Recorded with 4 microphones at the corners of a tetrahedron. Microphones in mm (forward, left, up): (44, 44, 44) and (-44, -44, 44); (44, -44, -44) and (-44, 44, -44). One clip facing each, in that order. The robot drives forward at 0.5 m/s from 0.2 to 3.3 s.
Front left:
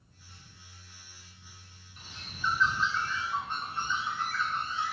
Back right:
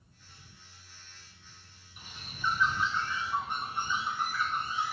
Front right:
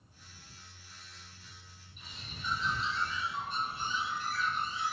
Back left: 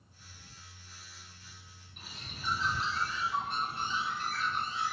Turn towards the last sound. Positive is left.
turn(degrees=150)